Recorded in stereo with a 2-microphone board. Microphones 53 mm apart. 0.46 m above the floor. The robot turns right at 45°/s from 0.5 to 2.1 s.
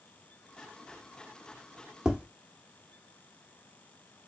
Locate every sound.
2.0 s tapping: 15° right (ahead or behind), 0.8 m; by 2.2 s 20° right (ahead or behind), 0.8 m